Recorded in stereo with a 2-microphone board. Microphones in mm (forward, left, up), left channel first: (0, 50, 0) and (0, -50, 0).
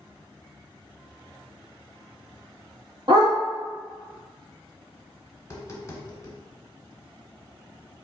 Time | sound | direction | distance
3.1 | a dog barking | 45° right (ahead or behind) | 1.7 m
5.4 | tapping | 30° left (ahead or behind) | 1.1 m